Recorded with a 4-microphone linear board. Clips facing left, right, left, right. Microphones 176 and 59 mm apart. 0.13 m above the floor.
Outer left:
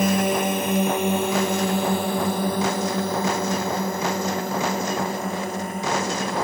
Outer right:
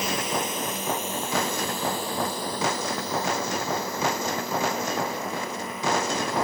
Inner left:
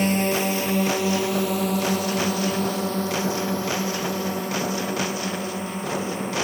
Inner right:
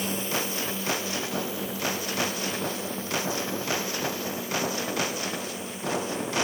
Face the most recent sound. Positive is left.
turn(degrees=45)  # may be behind; listen again after turning